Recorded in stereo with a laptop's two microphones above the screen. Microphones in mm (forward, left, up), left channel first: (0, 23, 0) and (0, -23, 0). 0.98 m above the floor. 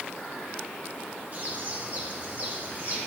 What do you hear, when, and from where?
1.3 s a bird: 45° right (ahead or behind), 2.5 m